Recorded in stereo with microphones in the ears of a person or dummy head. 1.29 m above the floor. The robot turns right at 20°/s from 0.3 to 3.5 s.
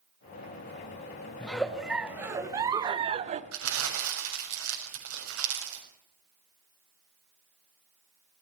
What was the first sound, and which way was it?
A giggle, 175° left.